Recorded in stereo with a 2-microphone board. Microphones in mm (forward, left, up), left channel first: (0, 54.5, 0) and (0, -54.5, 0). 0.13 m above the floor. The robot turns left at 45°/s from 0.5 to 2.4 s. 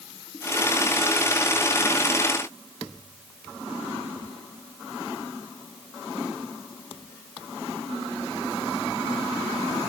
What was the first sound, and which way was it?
Only background noise.